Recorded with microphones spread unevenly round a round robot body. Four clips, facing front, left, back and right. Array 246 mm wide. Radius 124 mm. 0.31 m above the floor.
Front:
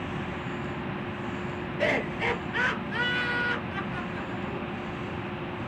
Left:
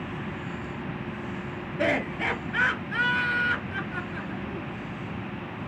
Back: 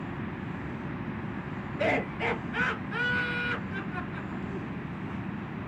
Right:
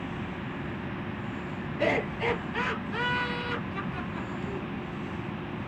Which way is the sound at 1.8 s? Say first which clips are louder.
Left 1 dB, even; 100° left.